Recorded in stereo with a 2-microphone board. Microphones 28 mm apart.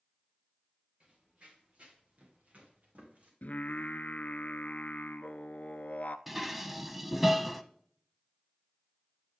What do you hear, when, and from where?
1.0 s running footsteps: 40° right (ahead or behind), 5.5 m; by 3.3 s 55° right (ahead or behind), 6.5 m
3.4 s singing: 75° left (ahead or behind), 0.6 m
6.3 s dishes clattering: 10° right (ahead or behind), 0.7 m